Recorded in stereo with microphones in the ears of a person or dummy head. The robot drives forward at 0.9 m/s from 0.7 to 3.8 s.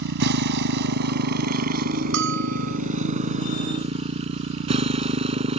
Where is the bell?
65° right (ahead or behind); by 2.8 s 60° right (ahead or behind).